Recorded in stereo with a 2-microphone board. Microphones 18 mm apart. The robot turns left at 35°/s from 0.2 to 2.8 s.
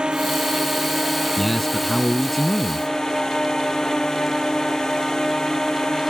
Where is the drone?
125° right; by 6.1 s 145° left.